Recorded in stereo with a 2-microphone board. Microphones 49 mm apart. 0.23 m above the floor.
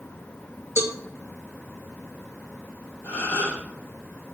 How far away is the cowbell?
About 0.8 m.